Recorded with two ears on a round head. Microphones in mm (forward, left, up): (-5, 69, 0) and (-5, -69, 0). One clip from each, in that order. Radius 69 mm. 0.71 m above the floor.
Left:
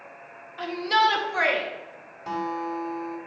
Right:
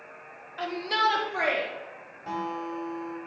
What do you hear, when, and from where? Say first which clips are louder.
0.6 s a shout: left 4 dB; 10° right (ahead or behind), 1.1 m; by 1.6 s 50° left (ahead or behind), 1.6 m
2.3 s a guitar: left 3 dB; 40° left (ahead or behind), 2.5 m